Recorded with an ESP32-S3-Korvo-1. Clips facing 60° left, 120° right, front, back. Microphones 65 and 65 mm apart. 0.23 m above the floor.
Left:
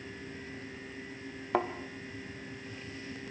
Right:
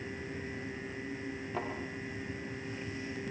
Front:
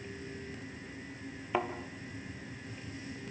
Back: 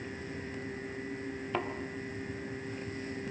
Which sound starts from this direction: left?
A thud, at 1.5 s.